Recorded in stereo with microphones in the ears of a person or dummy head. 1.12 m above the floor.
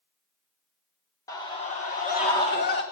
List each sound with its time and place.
1.3 s a scream: 10° left (ahead or behind), 0.8 m; by 2.8 s 45° left (ahead or behind), 1.7 m